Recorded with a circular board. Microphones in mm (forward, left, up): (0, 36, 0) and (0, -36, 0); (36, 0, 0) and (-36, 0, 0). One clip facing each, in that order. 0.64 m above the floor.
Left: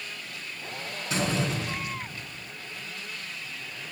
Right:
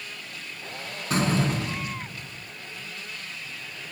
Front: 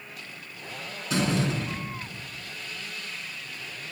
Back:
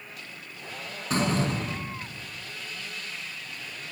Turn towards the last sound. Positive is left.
turn(degrees=-135)